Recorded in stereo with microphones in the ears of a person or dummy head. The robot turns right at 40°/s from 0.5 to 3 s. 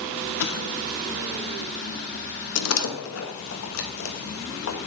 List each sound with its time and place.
0.4 s an explosion: 55° left (ahead or behind), 0.8 m; by 1.1 s 50° left (ahead or behind), 0.8 m
2.5 s a door slam: 80° left, 1.2 m; by 4.8 s 70° left (ahead or behind), 1.2 m